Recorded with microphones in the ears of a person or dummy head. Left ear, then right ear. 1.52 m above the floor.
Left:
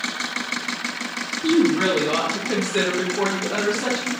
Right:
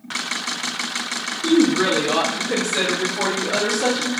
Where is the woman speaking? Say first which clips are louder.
Right 1 dB; 60° left (ahead or behind), 1.1 m; by 4.1 s 40° right (ahead or behind), 0.6 m.